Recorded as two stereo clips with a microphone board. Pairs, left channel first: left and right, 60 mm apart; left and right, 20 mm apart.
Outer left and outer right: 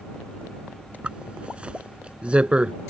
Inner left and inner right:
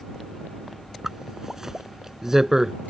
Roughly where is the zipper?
Right.